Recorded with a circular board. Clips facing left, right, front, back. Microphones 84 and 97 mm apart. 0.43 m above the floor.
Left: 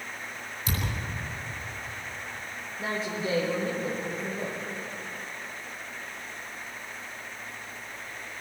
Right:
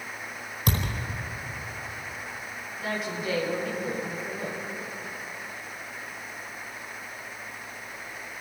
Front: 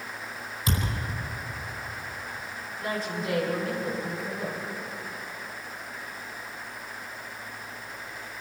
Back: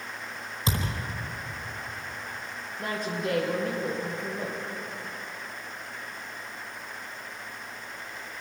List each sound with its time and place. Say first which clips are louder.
0.7 s a thud: right 4 dB, even; 115° right, 4.5 m
2.8 s a woman speaking: even, even; 145° left, 8.5 m